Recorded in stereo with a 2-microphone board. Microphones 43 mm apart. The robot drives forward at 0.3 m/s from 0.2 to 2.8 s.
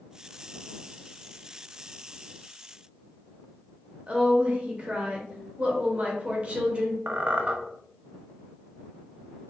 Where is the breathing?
No breathing in this recording.